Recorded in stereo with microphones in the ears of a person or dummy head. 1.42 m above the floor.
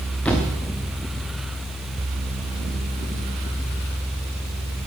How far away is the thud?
About 1.0 m.